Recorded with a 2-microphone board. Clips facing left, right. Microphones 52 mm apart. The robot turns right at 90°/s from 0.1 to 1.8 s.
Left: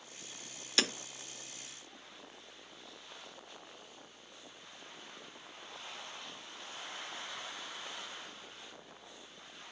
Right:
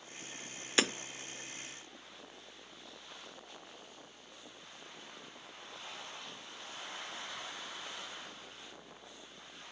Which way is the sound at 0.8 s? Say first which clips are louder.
Right 2 dB; 25° right (ahead or behind).